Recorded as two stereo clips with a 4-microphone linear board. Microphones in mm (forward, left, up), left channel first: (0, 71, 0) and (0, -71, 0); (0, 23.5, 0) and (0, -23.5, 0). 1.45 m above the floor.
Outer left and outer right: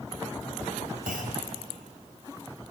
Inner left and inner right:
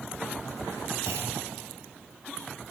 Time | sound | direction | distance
1.1 | a clunk | 80° right | 4 m